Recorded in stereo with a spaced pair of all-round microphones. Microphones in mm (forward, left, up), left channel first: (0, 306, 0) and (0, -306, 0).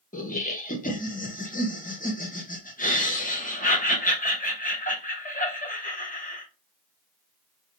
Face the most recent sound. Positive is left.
turn(degrees=15)  # may be behind; listen again after turning